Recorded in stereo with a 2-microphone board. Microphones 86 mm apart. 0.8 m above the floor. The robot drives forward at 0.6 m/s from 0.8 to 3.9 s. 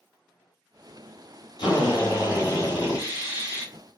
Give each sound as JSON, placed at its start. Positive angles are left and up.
{"t": 1.6, "sound": "a drill", "side_deg": 65, "distance_m": 1.8}